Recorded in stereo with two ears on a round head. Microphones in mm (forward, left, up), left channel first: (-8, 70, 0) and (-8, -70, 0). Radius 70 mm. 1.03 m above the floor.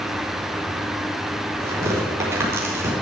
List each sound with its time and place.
1.6 s tearing paper: 15° right (ahead or behind), 4 m